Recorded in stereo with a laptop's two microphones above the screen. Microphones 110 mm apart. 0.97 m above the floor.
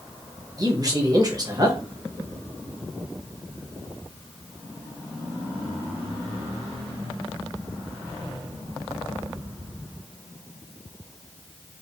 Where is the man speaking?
35° right (ahead or behind), 0.9 m.